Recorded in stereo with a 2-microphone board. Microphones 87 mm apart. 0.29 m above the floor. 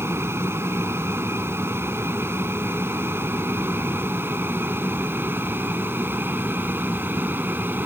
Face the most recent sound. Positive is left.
turn(degrees=-25)  # may be behind; listen again after turning